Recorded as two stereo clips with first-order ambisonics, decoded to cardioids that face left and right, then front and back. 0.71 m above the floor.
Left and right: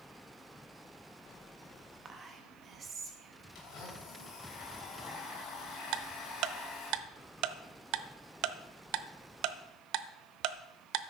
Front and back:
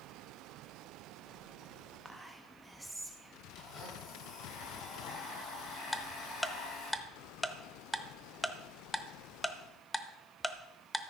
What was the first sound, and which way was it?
Whispering, 100° right.